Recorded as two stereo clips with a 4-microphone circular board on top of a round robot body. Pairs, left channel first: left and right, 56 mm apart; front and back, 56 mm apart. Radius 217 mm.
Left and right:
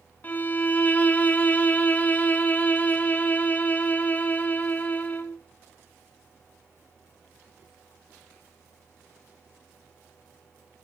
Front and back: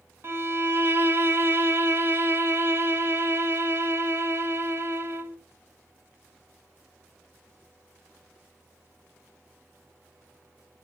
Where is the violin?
145° left, 2 m.